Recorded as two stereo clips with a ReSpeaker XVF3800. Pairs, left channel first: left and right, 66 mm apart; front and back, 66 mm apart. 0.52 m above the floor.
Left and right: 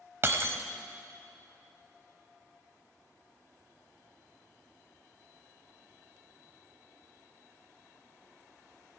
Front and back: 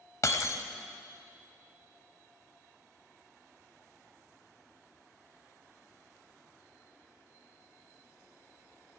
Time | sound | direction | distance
0.2 | breaking glass | 40° right | 0.9 m